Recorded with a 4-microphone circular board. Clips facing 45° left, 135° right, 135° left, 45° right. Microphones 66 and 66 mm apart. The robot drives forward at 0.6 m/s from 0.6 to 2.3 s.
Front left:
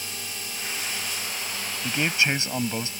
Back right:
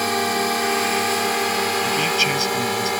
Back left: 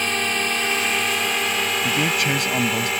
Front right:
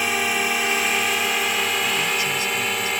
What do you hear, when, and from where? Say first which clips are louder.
0.0 s a drone: back right 18 dB, front right 1 dB; 130° right; by 3.0 s 135° right
1.8 s a man speaking: back right 5 dB, back left 2 dB; 110° left